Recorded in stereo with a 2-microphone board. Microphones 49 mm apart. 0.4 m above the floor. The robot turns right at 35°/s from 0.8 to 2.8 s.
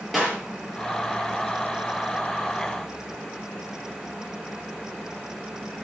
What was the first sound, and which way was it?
A clap, 5° left (ahead or behind).